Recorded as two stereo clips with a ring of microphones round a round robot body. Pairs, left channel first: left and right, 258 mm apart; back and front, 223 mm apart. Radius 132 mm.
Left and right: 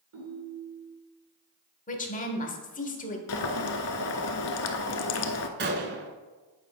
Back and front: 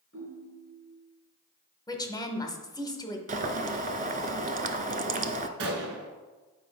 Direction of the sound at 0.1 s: 130° right.